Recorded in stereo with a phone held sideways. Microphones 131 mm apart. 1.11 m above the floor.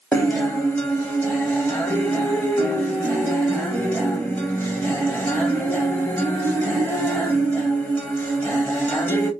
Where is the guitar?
15° left (ahead or behind), 1.3 m.